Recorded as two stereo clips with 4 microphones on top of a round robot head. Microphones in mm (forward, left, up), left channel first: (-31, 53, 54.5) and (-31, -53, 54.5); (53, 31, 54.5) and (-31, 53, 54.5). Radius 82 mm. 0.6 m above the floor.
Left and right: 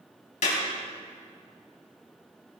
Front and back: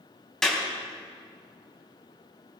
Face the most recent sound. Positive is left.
turn(degrees=70)